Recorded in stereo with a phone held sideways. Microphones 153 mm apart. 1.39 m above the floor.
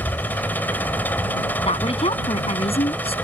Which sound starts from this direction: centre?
An engine running, at 0.0 s.